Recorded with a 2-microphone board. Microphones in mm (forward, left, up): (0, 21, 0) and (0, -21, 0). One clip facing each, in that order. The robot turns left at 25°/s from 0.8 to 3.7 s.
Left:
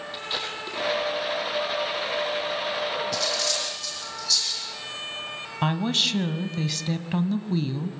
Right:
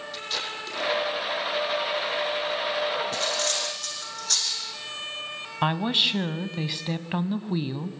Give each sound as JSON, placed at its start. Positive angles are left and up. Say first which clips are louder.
{"t": 0.1, "sound": "tape being pulled", "louder": "left 1 dB", "side_deg": 20, "distance_m": 5.5}
{"t": 3.1, "sound": "cutlery clinking", "louder": "even", "side_deg": -35, "distance_m": 6.0}
{"t": 5.6, "sound": "a woman speaking", "louder": "right 1 dB", "side_deg": -15, "distance_m": 1.0}